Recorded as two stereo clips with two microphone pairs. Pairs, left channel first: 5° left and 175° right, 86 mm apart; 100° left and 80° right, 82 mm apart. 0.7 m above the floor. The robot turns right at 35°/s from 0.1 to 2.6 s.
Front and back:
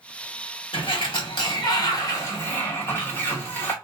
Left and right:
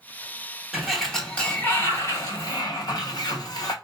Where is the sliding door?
5° left, 1.2 m; by 3.7 s 70° left, 1.2 m.